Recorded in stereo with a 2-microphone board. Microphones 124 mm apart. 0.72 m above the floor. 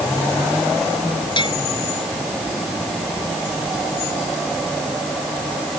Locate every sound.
1.4 s a bell: 40° left (ahead or behind)